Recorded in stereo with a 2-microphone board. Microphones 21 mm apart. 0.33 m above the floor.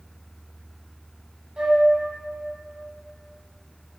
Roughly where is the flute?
Right.